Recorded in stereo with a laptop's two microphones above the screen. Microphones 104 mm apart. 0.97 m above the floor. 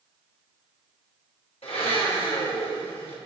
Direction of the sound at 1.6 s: 75° left (ahead or behind).